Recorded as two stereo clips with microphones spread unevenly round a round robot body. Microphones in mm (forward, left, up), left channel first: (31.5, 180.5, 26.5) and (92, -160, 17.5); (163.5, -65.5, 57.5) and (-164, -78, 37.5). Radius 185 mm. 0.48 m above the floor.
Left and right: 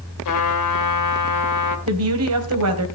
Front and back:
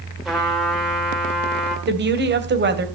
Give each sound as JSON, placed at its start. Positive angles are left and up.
{"t": 0.2, "sound": "a trumpet", "azimuth_deg": 95, "distance_m": 2.5}
{"t": 1.9, "sound": "a woman speaking", "azimuth_deg": -125, "distance_m": 3.0}